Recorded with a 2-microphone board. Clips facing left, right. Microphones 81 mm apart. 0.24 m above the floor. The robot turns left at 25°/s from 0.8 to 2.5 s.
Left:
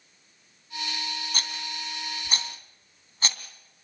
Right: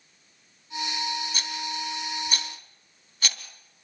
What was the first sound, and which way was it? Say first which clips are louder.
A rattle: right 3 dB; 50° left (ahead or behind).